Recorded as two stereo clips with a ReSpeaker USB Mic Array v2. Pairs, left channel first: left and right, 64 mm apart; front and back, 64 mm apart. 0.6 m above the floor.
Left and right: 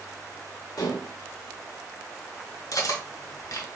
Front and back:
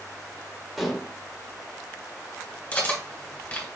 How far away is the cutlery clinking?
About 1.6 m.